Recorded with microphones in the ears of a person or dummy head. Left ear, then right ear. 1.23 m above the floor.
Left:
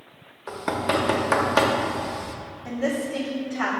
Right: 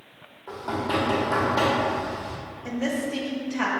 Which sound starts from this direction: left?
Knocking, at 0.5 s.